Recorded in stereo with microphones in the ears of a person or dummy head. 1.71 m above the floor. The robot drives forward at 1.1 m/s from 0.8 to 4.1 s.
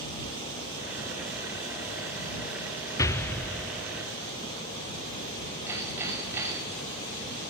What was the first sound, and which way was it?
An explosion, 15° left (ahead or behind).